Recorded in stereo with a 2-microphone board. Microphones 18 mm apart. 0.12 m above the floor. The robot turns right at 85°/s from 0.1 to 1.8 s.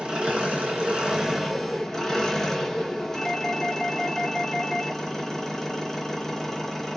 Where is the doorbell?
30° left (ahead or behind), 2.5 m.